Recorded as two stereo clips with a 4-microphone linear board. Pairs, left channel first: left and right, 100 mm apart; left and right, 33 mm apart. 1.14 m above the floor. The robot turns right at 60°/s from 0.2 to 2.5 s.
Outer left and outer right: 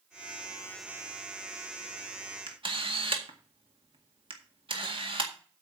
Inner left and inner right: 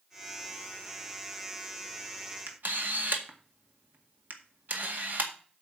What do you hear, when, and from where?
2.5 s a camera shutter: 60° right (ahead or behind), 1.8 m